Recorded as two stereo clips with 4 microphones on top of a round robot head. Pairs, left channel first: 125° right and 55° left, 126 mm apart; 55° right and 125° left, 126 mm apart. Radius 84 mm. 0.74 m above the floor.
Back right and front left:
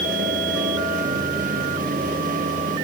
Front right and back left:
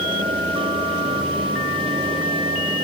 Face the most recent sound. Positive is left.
No sound to turn to.